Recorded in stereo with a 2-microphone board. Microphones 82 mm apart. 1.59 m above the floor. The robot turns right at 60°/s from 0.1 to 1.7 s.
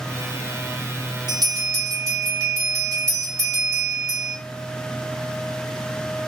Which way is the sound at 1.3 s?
60° right (ahead or behind).